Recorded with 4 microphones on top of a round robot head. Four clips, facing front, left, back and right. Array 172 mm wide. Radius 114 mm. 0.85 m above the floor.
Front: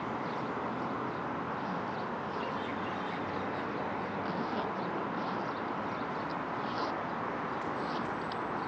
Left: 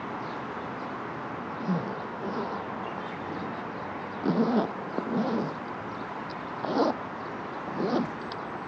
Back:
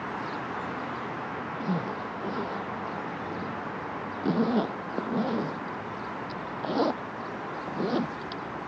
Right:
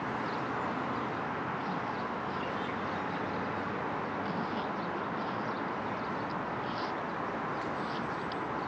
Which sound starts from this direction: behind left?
A zipper, at 1.6 s.